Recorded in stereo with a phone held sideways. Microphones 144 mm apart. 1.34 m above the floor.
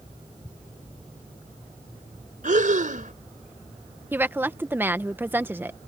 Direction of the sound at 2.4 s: 65° right (ahead or behind).